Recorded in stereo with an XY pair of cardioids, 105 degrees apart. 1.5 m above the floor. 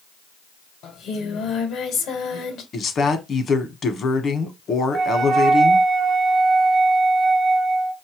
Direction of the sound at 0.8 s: 70° left.